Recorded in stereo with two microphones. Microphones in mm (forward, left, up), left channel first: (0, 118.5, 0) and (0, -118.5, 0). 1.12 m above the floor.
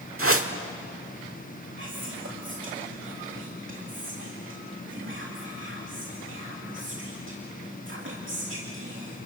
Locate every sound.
0.2 s a whoosh: 65° right (ahead or behind), 1.4 m
1.8 s whispering: 55° right (ahead or behind), 2.5 m